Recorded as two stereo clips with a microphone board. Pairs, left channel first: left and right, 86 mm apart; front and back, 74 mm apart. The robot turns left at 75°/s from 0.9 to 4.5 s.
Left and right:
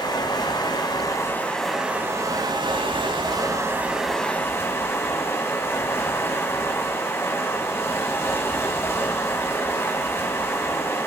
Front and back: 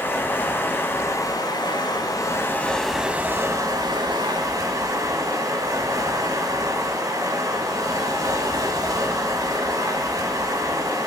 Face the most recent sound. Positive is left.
turn(degrees=150)